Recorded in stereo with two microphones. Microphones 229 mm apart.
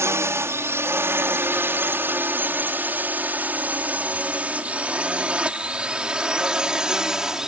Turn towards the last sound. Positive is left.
turn(degrees=0)  # may be behind; listen again after turning